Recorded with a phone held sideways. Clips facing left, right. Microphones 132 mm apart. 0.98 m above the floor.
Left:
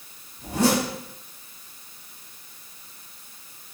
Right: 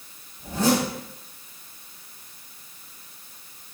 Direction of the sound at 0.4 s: 75° left (ahead or behind).